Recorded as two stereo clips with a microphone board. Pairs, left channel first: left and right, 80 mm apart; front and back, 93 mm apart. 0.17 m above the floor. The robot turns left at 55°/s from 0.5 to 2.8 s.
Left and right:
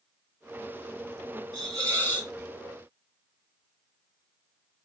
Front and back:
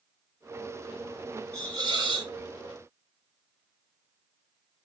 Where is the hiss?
125° right, 2.5 m; by 2.3 s 170° right, 2.5 m.